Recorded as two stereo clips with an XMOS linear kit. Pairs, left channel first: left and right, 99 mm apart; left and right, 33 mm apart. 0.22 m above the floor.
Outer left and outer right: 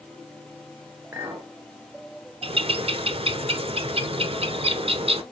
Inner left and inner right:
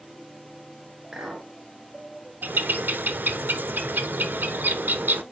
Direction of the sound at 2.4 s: 80° right.